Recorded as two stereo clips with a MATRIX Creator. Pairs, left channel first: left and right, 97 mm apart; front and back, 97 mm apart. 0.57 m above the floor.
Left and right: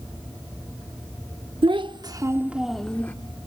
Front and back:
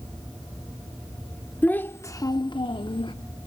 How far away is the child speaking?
About 0.8 m.